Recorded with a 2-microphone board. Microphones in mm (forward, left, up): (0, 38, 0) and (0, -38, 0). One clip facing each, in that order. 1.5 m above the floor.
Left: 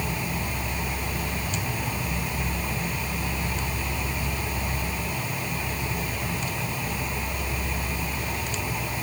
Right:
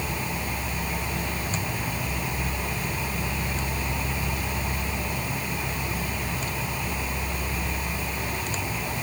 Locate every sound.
Only background noise.